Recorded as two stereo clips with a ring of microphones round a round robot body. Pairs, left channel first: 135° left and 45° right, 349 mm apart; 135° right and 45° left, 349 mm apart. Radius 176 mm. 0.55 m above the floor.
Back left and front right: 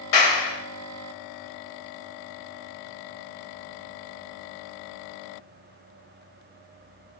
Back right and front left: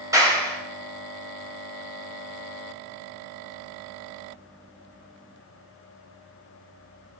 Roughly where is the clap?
Behind left.